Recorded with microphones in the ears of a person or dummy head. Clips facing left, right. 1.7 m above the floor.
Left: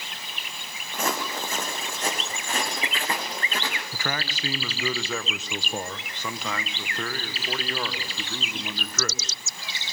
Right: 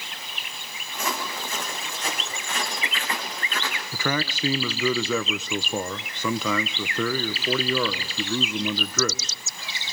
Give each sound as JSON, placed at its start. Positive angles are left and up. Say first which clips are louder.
{"t": 0.9, "sound": "footsteps", "louder": "left 2 dB", "side_deg": 45, "distance_m": 4.5}
{"t": 3.9, "sound": "a man speaking", "louder": "right 9 dB", "side_deg": -85, "distance_m": 1.5}